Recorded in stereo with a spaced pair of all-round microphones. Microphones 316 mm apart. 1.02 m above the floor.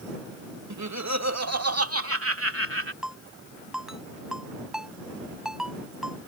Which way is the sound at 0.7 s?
65° right (ahead or behind).